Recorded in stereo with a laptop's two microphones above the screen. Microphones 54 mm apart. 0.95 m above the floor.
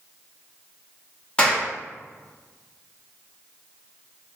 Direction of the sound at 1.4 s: 20° left (ahead or behind).